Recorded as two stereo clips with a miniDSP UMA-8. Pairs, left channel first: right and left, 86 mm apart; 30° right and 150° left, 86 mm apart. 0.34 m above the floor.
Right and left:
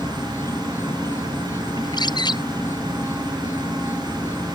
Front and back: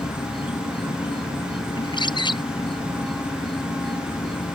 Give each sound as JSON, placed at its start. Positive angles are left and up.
{"t": 0.0, "sound": "an insect", "azimuth_deg": -30}
{"t": 1.8, "sound": "a bird", "azimuth_deg": -55}